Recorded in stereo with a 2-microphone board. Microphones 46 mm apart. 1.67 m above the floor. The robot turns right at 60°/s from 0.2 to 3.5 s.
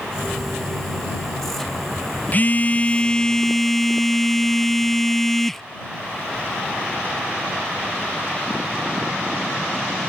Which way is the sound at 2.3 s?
100° left.